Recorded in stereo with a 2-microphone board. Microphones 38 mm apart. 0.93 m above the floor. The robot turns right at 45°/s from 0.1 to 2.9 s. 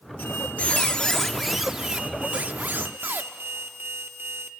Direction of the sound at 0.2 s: 125° left.